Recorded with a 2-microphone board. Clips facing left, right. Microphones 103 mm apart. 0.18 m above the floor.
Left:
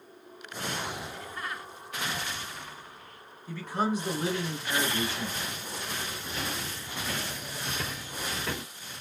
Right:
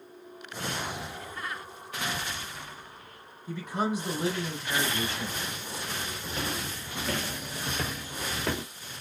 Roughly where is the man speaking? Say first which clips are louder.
Even; centre.